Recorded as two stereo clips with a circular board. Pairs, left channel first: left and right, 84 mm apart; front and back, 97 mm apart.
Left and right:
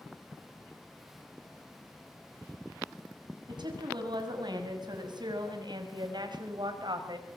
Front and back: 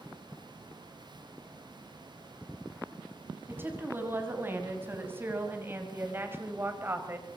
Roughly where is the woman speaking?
Behind right.